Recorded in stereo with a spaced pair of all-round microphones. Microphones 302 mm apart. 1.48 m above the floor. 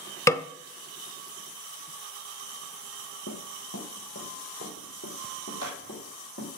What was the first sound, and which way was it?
A snare drum, 10° left (ahead or behind).